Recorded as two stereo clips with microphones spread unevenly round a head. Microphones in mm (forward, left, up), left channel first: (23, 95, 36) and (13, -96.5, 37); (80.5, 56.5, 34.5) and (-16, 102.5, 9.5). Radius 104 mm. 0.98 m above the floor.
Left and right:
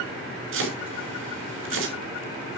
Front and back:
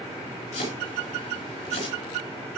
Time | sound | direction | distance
0.5 | chopping | 75° right | 5.5 m